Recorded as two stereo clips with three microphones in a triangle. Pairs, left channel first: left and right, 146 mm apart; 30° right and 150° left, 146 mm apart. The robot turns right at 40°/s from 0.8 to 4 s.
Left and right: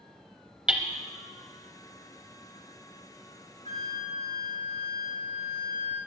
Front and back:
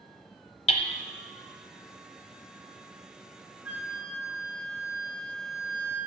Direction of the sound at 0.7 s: 10° right.